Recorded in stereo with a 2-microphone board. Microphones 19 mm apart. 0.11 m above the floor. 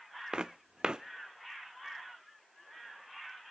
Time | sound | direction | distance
0.3 | footsteps | 45° right (ahead or behind) | 0.5 m